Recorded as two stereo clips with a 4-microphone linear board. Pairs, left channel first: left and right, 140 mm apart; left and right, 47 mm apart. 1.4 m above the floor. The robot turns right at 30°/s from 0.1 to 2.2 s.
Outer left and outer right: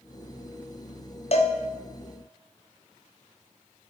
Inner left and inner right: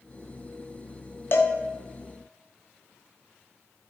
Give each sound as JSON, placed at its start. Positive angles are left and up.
{"t": 1.3, "sound": "a cowbell", "side_deg": 50, "distance_m": 0.7}